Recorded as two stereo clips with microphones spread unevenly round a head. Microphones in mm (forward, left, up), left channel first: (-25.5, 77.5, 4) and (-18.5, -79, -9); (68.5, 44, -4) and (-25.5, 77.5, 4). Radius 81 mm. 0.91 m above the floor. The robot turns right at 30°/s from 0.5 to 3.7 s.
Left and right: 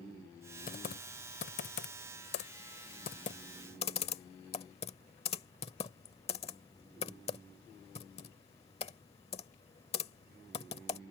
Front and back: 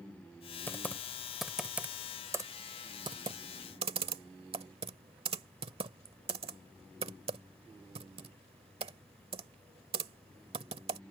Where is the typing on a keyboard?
50° left; by 11.0 s 145° left.